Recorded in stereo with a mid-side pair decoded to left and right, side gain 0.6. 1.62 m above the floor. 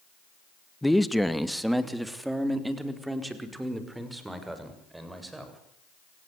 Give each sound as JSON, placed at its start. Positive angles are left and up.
{"t": 0.8, "sound": "a man speaking", "azimuth_deg": 5, "distance_m": 1.8}